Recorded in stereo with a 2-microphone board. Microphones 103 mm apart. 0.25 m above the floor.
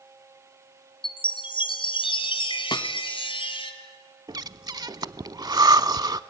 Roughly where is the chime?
Left.